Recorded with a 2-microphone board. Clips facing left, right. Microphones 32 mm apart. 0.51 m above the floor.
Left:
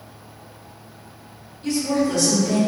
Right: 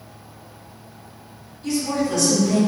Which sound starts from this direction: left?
A woman speaking, at 1.6 s.